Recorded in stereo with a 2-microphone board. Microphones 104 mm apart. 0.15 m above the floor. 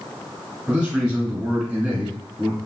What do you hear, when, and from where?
0.7 s a man speaking: 15° right (ahead or behind), 1.3 m